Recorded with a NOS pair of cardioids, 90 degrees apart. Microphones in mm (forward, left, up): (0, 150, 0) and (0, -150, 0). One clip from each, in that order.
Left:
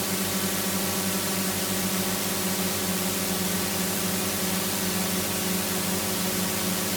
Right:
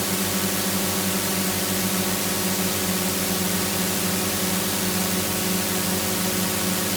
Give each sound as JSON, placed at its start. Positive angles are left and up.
{"t": 0.0, "sound": "a drone", "azimuth_deg": -20}